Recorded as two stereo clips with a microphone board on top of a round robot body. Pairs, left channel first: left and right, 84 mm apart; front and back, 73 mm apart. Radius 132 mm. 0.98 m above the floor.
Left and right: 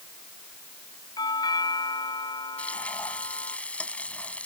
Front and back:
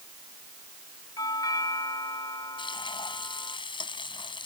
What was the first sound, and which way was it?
A doorbell, 45° left.